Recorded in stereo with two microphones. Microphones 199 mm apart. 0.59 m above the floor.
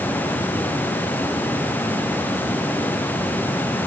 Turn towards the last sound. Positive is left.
No sound to turn to.